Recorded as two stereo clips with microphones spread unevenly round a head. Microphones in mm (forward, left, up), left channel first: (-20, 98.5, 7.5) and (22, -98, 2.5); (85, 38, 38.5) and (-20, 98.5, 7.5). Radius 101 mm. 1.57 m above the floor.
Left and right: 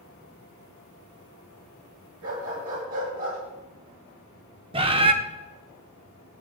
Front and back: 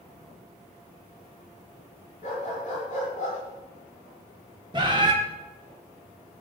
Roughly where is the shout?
No shout in this recording.